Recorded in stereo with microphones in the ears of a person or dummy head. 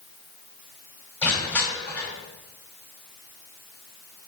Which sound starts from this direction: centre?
Crushing, at 1.2 s.